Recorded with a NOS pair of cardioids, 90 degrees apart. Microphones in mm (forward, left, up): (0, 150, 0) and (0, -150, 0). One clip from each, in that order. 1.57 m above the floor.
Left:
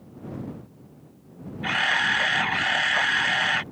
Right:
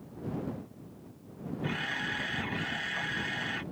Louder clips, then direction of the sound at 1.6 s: Left 12 dB; 70° left.